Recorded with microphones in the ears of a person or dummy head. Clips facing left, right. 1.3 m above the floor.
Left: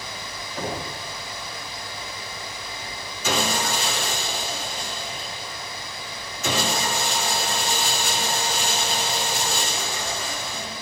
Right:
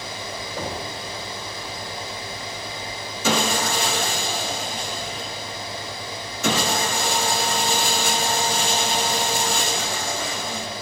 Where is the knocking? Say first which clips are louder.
Left 1 dB; 70° right (ahead or behind), 6 m.